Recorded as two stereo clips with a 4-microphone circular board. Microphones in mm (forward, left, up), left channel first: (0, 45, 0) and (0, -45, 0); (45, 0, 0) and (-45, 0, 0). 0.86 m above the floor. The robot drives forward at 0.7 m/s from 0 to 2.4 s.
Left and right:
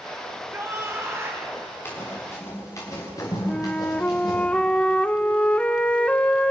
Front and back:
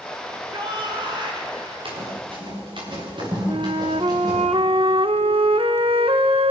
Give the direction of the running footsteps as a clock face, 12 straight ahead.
7 o'clock.